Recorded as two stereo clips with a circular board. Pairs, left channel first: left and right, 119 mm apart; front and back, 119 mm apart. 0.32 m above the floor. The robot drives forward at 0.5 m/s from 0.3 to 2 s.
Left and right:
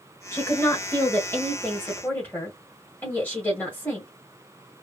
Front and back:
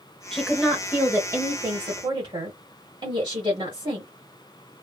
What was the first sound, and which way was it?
A woman speaking, 75° left.